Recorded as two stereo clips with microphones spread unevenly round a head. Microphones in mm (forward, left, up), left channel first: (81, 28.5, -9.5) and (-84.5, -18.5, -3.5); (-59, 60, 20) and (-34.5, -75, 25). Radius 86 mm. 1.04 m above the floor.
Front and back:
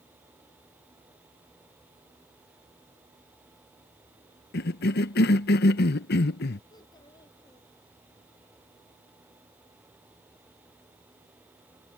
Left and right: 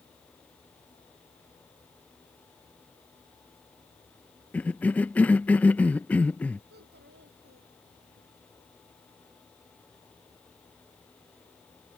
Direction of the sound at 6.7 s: 55° right.